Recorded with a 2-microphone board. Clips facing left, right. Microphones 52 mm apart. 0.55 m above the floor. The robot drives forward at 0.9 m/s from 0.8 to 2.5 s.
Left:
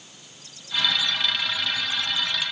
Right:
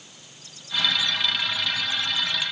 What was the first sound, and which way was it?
Only background noise.